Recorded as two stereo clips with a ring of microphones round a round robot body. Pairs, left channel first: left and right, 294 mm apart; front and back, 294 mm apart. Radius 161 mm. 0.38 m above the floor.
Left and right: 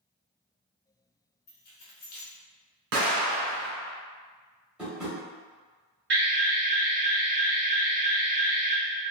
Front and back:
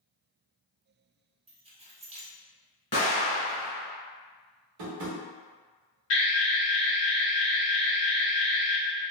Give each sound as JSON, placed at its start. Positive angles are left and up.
{"t": 1.5, "sound": "keys jangling", "azimuth_deg": 125, "distance_m": 0.8}
{"t": 2.9, "sound": "an explosion", "azimuth_deg": -70, "distance_m": 1.3}
{"t": 4.8, "sound": "tapping", "azimuth_deg": -175, "distance_m": 0.9}
{"t": 6.1, "sound": "an alarm", "azimuth_deg": -45, "distance_m": 1.4}